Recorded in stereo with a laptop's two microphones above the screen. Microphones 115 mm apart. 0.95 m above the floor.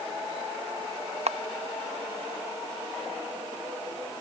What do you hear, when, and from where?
1.3 s a camera shutter: 70° right (ahead or behind)